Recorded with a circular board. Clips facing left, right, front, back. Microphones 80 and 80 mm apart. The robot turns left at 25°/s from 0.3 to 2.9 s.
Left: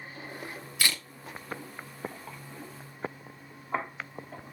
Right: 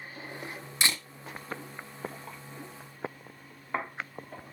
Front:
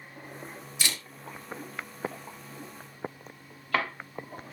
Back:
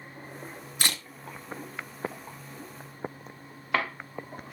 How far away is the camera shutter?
About 1.7 m.